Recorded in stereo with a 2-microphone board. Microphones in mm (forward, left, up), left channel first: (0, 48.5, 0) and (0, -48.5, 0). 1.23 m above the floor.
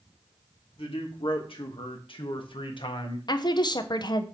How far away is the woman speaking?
About 0.8 m.